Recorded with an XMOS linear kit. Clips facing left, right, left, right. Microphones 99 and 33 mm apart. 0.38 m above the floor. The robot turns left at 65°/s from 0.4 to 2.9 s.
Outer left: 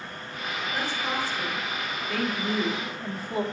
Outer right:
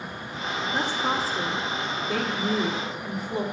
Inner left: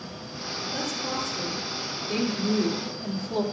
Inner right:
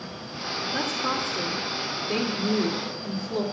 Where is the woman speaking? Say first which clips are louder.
Outer right 4 dB, inner right 4 dB; 45° right, 1.3 m; by 3.4 s 175° left, 1.3 m.